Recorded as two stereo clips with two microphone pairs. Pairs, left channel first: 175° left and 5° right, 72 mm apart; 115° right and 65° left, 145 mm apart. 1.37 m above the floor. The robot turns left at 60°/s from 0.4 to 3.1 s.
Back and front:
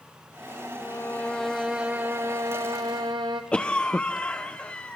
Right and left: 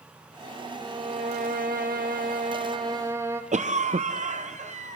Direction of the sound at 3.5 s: 100° left.